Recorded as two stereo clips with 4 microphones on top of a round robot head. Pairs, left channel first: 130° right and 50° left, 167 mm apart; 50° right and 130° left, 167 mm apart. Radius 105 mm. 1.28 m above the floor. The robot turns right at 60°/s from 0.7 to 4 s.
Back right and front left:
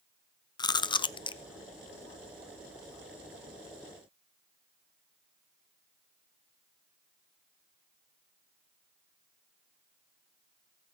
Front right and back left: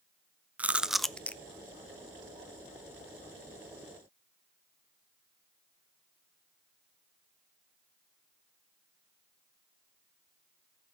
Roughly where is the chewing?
Behind right.